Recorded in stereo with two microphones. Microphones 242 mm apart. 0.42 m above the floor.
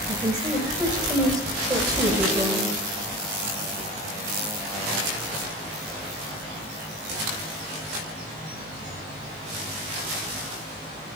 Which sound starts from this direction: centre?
A woman speaking, at 0.1 s.